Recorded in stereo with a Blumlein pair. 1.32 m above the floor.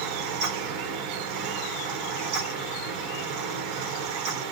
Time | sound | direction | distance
0.0 | a fan | 40° right | 1.2 m